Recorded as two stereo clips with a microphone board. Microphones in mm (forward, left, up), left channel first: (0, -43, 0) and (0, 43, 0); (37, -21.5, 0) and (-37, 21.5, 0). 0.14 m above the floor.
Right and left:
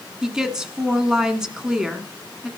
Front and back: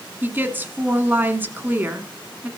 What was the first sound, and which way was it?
A woman speaking, 165° left.